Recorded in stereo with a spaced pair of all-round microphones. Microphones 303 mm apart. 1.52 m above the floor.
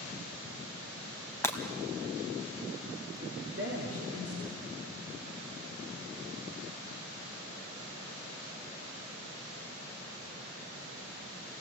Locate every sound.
1.4 s breaking glass: 10° left (ahead or behind), 2 m
3.2 s a woman speaking: 50° right (ahead or behind), 3.5 m